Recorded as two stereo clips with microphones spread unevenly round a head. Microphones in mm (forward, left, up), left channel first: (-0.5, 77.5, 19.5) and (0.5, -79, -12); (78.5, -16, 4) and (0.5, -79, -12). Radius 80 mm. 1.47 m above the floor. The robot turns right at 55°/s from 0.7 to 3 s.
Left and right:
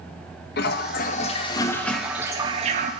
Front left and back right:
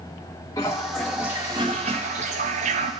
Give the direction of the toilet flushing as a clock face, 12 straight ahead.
8 o'clock.